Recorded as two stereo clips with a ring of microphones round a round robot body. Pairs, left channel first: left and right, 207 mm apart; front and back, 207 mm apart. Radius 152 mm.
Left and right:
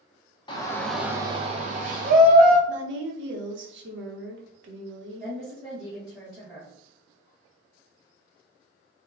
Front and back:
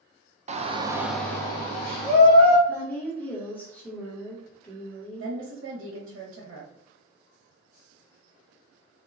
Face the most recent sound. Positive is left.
turn(degrees=-175)